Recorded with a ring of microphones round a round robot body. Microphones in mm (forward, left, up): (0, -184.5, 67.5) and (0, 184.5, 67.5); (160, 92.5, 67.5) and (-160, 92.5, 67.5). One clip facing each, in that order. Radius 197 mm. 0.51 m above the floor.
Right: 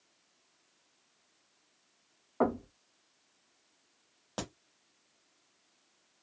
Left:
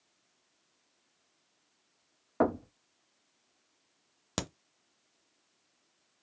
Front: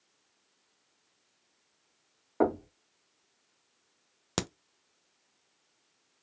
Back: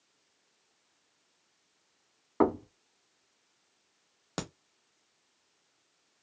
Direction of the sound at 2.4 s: 120° left.